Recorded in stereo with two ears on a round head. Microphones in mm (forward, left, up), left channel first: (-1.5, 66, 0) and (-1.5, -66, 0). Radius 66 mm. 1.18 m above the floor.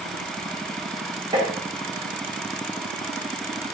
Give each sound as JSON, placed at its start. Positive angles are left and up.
{"t": 1.3, "sound": "tapping", "side_deg": -30, "distance_m": 3.5}